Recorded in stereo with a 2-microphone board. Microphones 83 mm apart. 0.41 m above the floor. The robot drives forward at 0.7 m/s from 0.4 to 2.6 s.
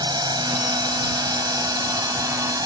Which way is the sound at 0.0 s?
55° right (ahead or behind).